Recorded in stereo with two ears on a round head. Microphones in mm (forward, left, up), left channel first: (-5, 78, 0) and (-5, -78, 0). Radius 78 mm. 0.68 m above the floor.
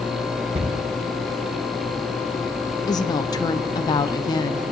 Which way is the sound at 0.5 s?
35° right (ahead or behind).